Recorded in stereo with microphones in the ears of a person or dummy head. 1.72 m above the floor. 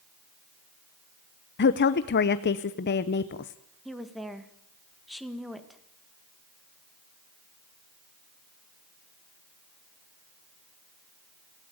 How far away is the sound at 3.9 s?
About 2 m.